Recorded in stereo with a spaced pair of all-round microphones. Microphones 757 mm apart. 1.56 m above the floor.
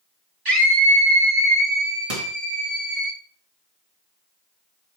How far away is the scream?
About 0.9 m.